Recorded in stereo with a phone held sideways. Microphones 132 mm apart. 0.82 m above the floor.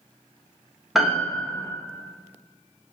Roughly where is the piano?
Centre.